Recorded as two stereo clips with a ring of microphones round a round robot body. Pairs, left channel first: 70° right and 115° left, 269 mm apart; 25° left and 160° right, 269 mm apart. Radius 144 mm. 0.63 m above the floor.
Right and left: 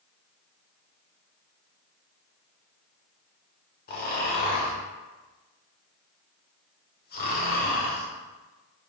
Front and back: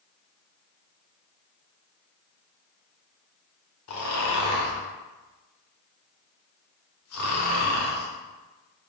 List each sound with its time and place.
3.9 s snoring: 10° right, 1.0 m